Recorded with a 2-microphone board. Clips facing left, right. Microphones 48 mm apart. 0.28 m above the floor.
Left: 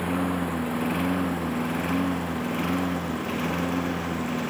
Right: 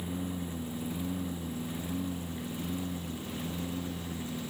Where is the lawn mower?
80° left; by 4.5 s 70° left (ahead or behind).